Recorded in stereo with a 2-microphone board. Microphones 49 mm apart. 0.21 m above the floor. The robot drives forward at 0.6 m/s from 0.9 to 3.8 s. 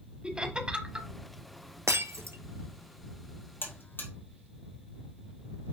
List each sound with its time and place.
0.2 s laughter: 20° right (ahead or behind), 1.0 m
1.9 s breaking glass: 85° right, 0.9 m; by 2.4 s 70° right (ahead or behind), 0.9 m
3.6 s a buzzer: 45° left (ahead or behind), 1.9 m